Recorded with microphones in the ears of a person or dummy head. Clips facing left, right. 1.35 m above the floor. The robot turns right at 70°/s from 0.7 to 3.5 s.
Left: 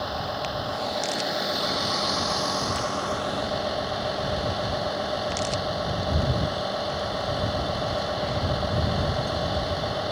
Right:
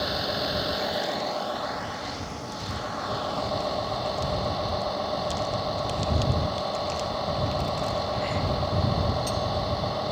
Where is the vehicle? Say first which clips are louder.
Right 1 dB; 30° right; by 10.1 s 170° left.